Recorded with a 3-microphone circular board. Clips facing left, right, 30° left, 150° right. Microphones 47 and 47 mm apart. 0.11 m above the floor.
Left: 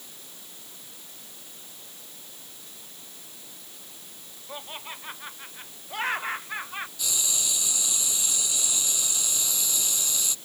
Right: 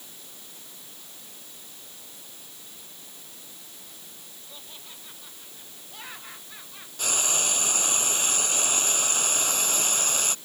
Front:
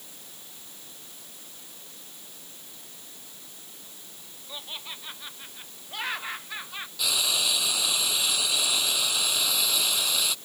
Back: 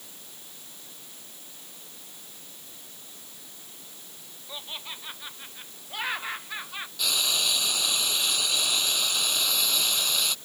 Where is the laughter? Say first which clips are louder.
Left 11 dB, back 1 dB; 125° left.